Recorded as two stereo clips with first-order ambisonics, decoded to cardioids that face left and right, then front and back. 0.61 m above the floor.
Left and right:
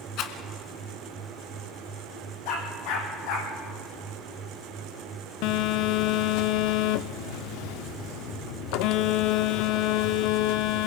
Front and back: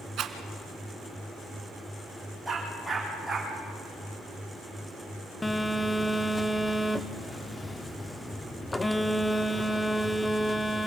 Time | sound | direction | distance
0.2 | a rattle | 130° left | 1.6 m
2.5 | a dog barking | 85° left | 6.5 m
5.4 | a phone buzzing | 80° left | 0.5 m